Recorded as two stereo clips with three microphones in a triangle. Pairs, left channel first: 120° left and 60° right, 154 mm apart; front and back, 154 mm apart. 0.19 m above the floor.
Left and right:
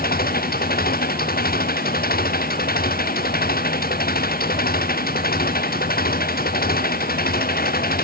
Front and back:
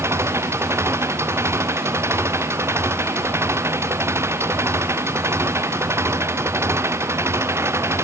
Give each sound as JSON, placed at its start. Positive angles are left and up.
{"t": 0.0, "sound": "an engine running", "azimuth_deg": 105}